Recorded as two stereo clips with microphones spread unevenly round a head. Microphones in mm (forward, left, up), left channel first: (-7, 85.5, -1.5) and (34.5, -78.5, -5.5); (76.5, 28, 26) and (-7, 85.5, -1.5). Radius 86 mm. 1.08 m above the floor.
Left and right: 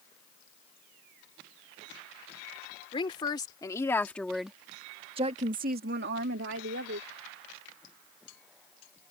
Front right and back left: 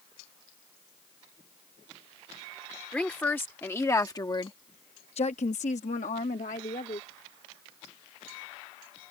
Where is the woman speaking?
45° left; by 7.1 s 75° right.